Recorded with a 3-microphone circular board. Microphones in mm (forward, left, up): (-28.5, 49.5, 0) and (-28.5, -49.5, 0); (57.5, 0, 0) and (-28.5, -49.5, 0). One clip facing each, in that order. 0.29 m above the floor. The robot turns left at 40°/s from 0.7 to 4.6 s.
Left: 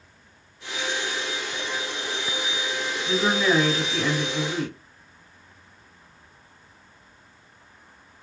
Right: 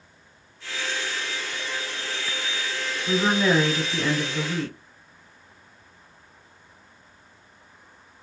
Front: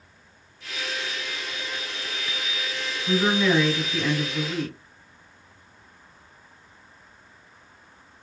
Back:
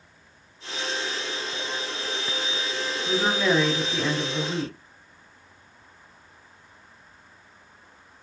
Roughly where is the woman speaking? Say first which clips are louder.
Right 1 dB, front 2 dB; behind right.